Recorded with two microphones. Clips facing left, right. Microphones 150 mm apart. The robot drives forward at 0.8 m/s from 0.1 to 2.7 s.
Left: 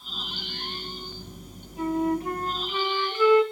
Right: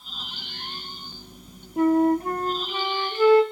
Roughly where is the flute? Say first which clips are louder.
Right 6 dB; right.